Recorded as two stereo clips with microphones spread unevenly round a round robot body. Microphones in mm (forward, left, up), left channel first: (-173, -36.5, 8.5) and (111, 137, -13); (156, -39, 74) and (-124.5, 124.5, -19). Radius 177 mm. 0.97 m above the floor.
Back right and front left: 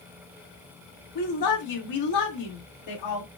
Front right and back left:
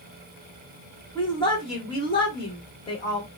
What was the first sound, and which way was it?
A woman speaking, 115° right.